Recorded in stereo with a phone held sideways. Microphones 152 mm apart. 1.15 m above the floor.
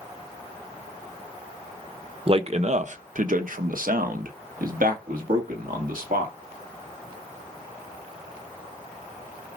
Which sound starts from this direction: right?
A man speaking, at 2.3 s.